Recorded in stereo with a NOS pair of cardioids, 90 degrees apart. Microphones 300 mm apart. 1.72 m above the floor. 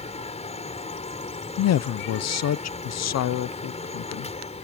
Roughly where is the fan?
Ahead.